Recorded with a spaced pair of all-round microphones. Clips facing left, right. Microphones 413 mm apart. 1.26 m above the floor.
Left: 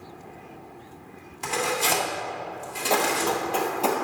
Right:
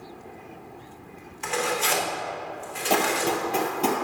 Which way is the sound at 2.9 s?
45° right (ahead or behind).